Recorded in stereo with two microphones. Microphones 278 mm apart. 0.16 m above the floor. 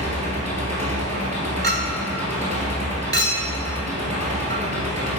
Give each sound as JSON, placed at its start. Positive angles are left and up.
{"t": 0.0, "sound": "an engine running", "side_deg": -25, "distance_m": 1.7}
{"t": 1.6, "sound": "a clink", "side_deg": -35, "distance_m": 1.0}